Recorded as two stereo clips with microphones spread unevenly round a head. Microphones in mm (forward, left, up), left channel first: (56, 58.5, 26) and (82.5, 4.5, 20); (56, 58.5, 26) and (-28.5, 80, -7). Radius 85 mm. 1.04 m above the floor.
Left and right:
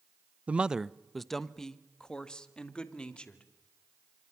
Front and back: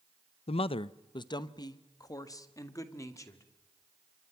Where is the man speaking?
Straight ahead, 0.5 m; by 3.4 s 45° left, 2.5 m.